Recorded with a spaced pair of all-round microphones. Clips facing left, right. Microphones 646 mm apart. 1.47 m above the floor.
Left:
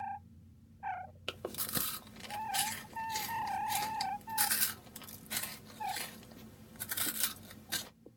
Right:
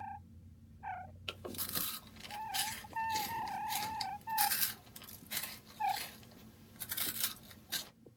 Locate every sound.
1.3 s chewing: 75° left (ahead or behind), 0.6 m